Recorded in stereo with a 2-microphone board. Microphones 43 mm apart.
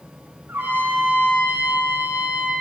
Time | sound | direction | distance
0.5 | a trumpet | 60° right (ahead or behind) | 9.5 m